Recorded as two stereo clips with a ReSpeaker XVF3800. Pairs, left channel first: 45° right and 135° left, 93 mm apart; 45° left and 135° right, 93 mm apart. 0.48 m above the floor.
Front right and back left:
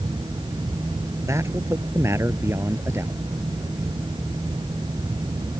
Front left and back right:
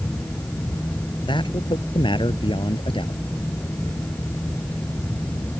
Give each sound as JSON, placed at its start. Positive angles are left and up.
{"t": 1.3, "sound": "a man speaking", "azimuth_deg": 75}